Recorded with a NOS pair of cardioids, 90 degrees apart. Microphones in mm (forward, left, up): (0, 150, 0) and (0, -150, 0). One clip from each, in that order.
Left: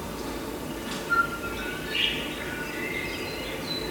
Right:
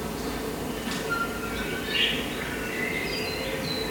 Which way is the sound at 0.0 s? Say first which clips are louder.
Right 2 dB; 25° right.